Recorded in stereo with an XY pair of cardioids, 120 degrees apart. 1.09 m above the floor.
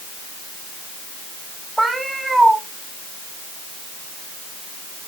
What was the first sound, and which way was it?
A cat meowing, 10° right.